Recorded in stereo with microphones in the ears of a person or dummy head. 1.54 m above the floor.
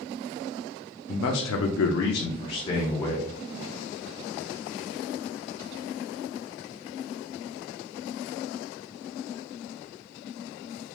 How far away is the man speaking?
About 0.6 m.